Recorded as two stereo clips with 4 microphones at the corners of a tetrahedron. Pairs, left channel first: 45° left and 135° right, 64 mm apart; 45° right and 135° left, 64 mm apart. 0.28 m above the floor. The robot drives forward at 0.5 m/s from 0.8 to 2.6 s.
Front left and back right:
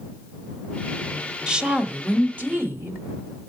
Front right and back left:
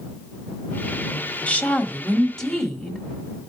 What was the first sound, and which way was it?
A woman speaking, 70° right.